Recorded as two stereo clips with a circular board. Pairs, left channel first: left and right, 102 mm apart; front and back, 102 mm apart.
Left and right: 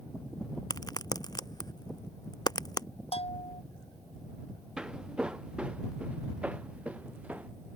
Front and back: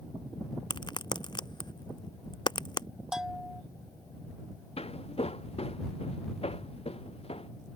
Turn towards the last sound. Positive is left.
turn(degrees=-15)